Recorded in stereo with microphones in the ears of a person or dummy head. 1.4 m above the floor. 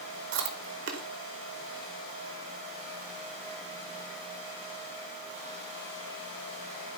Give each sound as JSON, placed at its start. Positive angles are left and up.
{"t": 0.3, "sound": "chewing", "side_deg": -60, "distance_m": 1.6}